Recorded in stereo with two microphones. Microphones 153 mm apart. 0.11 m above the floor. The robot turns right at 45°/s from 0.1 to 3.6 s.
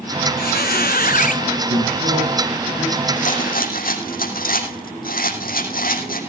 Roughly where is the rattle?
Left.